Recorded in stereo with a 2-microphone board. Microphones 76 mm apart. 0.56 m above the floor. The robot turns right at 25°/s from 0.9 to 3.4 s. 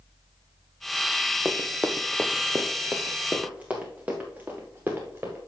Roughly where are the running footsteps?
Centre.